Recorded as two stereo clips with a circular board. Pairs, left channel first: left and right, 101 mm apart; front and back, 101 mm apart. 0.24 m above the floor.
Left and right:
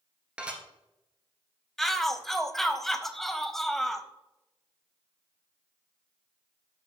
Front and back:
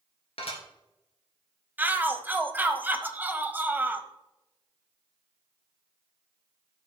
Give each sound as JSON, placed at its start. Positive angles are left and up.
{"t": 0.4, "sound": "dishes clattering", "azimuth_deg": -10, "distance_m": 2.0}
{"t": 1.8, "sound": "a shout", "azimuth_deg": 170, "distance_m": 0.9}